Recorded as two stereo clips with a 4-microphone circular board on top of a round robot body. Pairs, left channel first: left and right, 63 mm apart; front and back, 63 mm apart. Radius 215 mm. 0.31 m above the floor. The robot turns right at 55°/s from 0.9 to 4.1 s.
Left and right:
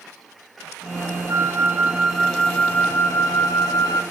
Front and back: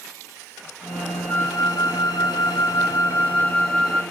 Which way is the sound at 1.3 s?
45° right.